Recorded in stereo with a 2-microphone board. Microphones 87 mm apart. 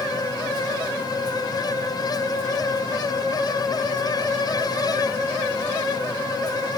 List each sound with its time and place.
Only background noise.